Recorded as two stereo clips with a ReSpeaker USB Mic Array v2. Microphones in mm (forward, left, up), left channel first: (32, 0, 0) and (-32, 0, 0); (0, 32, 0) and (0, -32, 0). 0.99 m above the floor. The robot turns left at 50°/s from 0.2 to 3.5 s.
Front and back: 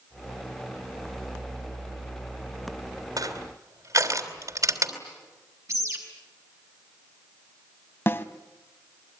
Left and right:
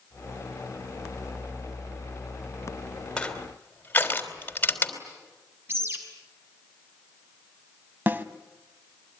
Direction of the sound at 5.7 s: 140° right.